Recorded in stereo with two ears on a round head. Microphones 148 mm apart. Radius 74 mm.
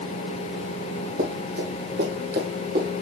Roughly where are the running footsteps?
Right.